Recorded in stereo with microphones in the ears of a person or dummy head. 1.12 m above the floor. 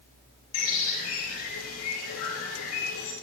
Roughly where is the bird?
Left.